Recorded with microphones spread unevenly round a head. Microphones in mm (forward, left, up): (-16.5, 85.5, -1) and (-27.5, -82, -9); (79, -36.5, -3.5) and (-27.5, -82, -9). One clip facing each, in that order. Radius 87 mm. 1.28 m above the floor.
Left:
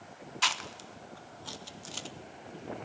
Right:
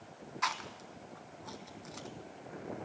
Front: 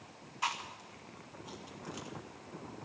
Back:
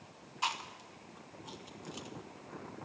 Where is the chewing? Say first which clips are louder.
Left 1 dB, even; 135° left, 0.6 m.